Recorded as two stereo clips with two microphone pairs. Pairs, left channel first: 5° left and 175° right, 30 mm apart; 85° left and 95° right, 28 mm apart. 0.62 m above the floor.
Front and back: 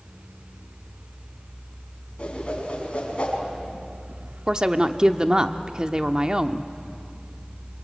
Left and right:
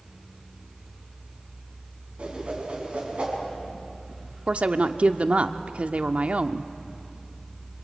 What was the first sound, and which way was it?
A whoosh, 50° right.